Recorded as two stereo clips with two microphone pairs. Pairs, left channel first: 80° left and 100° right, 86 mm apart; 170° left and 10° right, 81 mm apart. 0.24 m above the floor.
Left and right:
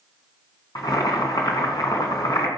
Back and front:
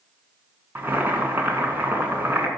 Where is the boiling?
50° left, 2.5 m.